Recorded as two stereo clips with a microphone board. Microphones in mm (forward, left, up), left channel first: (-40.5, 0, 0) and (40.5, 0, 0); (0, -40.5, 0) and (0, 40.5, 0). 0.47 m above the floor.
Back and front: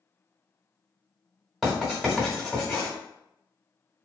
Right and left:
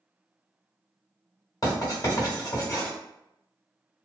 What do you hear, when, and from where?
1.6 s writing: 90° right, 1.7 m